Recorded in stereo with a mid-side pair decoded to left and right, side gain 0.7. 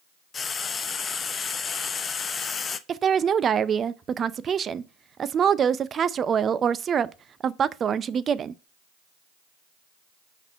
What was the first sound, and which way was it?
Frying, 30° left.